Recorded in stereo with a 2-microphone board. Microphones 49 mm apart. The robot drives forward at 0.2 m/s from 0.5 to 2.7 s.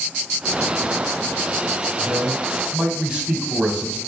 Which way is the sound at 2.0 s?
20° right (ahead or behind).